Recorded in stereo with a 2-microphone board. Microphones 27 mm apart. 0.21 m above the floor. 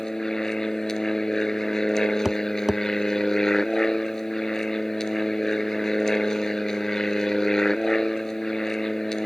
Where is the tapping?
10° right (ahead or behind).